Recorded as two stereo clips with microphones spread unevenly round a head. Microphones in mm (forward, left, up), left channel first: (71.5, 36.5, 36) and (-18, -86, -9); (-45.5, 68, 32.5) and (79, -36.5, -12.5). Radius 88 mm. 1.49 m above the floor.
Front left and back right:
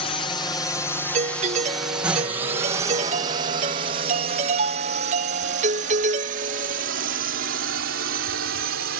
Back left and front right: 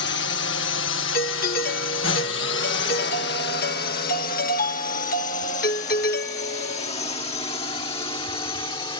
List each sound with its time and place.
0.0 s a drone: 120° left; by 9.0 s 150° right
1.1 s a doorbell: 175° right